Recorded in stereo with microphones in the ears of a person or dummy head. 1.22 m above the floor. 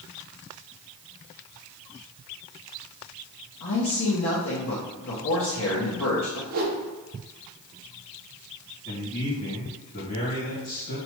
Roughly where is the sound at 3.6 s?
Left.